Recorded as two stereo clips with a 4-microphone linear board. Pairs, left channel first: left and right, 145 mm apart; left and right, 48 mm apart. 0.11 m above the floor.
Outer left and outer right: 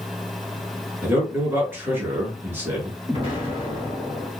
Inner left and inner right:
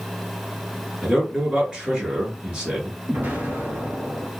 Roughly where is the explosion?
Right.